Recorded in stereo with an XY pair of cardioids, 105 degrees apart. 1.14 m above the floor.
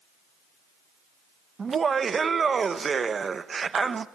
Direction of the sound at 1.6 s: 35° right.